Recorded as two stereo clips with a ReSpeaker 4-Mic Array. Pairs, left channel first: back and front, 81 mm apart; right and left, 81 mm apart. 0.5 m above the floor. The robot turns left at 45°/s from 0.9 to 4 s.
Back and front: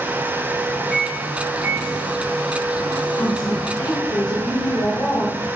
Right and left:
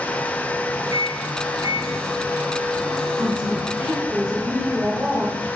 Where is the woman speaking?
150° right, 2 m; by 5.6 s 175° left, 2 m.